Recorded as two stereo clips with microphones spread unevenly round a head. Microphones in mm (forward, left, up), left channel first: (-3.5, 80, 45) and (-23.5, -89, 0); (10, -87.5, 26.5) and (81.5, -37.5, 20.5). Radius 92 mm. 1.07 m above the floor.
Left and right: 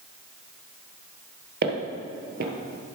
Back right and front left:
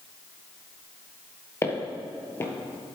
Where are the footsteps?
115° right, 1.3 m.